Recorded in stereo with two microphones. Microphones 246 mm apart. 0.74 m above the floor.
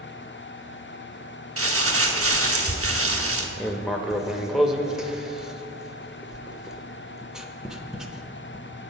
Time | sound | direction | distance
1.6 | crumpling | 65° right (ahead or behind) | 0.9 m
3.6 | writing | centre (ahead or behind) | 0.7 m